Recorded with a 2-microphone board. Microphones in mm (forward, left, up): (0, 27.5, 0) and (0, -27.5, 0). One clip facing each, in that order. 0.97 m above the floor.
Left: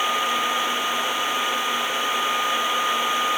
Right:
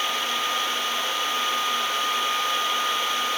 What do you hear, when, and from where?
Only background noise.